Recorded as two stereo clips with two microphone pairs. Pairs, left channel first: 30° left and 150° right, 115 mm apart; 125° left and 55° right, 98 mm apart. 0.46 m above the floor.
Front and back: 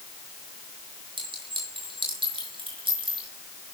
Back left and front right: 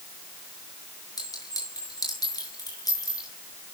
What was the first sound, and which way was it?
A clink, 175° left.